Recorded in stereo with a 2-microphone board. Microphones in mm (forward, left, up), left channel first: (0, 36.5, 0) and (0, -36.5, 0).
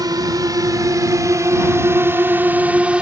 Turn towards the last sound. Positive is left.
turn(degrees=-15)  # may be behind; listen again after turning